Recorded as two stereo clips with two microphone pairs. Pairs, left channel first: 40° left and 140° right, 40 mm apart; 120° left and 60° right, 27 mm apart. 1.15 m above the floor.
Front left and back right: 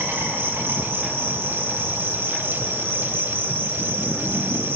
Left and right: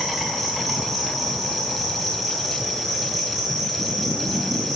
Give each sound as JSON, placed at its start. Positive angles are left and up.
{"t": 0.0, "sound": "an insect", "azimuth_deg": -150, "distance_m": 5.5}